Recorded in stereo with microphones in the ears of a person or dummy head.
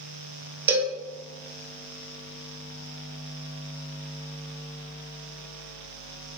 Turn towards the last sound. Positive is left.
turn(degrees=-10)  # may be behind; listen again after turning